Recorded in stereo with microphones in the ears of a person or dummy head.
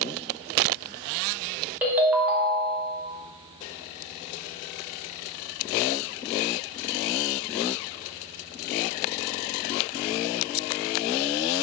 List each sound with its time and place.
1.8 s a ringtone: 10° right (ahead or behind), 0.7 m